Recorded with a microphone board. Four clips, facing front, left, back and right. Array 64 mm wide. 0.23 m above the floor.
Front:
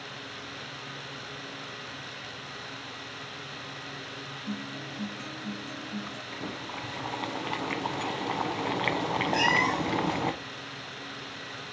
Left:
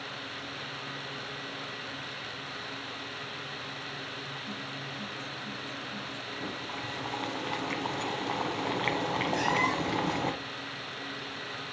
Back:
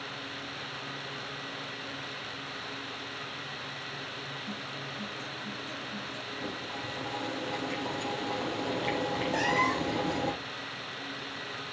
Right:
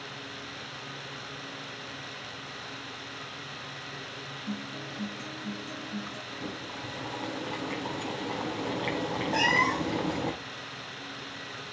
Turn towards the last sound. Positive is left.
turn(degrees=-45)